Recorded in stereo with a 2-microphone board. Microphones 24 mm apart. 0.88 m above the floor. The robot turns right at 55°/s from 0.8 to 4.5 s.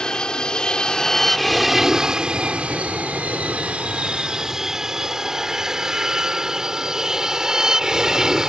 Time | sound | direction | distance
0.0 | an aircraft | 35° left (ahead or behind) | ?